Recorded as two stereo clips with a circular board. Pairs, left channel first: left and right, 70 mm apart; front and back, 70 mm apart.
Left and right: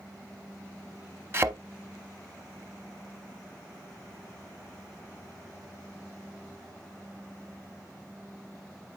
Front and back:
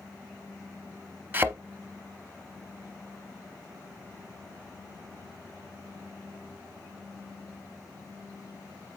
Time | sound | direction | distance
1.3 | a thud | 130° right | 0.7 m